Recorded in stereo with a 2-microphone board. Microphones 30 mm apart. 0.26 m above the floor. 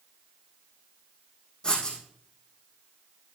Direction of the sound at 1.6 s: 30° left (ahead or behind).